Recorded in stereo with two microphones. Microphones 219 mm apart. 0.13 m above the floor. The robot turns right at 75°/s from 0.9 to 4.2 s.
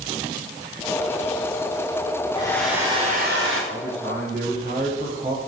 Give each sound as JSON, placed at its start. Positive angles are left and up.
{"t": 2.4, "sound": "a hair dryer", "azimuth_deg": 155, "distance_m": 7.0}
{"t": 3.7, "sound": "a man speaking", "azimuth_deg": -75, "distance_m": 8.5}